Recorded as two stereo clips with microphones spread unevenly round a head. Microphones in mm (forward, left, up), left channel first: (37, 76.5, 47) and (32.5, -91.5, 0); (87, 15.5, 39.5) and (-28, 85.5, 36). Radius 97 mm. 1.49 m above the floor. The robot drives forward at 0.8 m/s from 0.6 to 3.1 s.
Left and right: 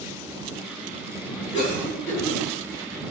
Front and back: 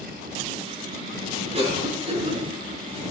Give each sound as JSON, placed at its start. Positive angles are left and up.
{"t": 1.5, "sound": "a cough", "azimuth_deg": 110, "distance_m": 9.5}